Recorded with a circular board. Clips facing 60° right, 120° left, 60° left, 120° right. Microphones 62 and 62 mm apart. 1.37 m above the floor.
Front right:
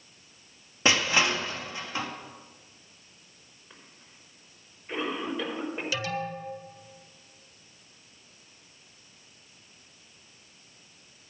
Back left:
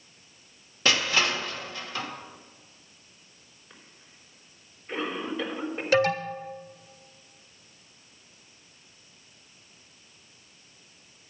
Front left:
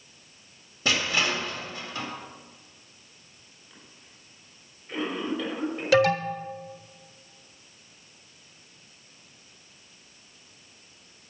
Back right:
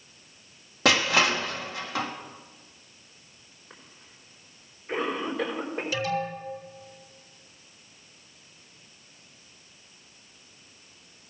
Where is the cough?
145° right, 5 m.